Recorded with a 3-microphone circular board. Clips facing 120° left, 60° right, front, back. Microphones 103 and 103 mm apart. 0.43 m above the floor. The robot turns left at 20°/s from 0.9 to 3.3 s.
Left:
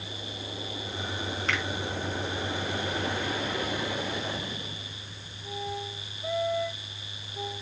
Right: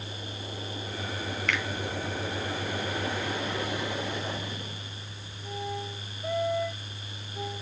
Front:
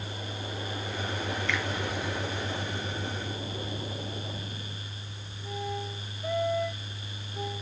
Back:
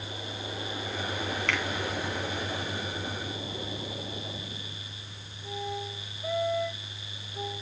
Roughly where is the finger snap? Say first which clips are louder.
Even, back 1 dB; behind.